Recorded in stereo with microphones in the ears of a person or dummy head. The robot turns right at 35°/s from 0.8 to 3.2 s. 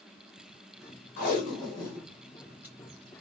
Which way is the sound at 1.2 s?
45° left (ahead or behind).